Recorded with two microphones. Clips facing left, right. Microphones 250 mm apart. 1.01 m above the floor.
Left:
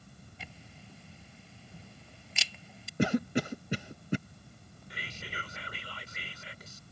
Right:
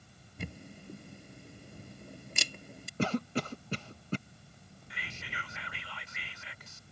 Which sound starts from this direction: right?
A camera shutter, at 0.4 s.